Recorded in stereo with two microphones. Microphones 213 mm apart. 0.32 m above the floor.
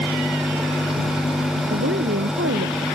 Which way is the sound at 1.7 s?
85° right.